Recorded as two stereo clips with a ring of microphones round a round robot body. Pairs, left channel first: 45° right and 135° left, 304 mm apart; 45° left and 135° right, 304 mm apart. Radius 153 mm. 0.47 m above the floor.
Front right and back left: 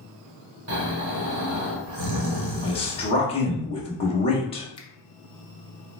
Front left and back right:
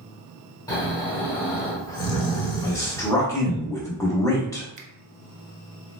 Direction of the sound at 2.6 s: 15° right.